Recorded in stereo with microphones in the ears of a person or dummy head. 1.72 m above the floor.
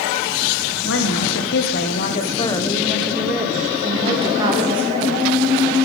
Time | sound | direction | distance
0.8 | a woman speaking | 70° left (ahead or behind) | 1.2 m